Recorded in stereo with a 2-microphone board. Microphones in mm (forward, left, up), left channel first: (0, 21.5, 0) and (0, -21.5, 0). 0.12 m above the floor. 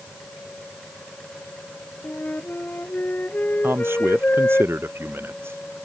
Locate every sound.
2.0 s a flute: 45° left (ahead or behind)
3.6 s a man speaking: 75° right (ahead or behind)